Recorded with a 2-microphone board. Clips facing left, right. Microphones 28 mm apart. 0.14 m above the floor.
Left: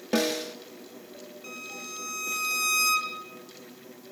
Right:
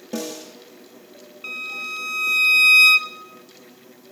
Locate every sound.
0.1 s a snare drum: 50° left (ahead or behind), 1.5 m
1.4 s a violin: 55° right (ahead or behind), 0.7 m